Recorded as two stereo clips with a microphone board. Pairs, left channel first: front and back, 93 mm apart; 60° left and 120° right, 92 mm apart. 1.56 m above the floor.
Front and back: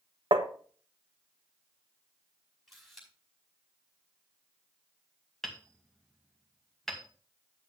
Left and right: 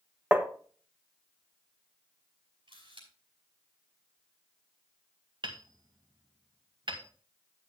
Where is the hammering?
90° right, 2.0 m.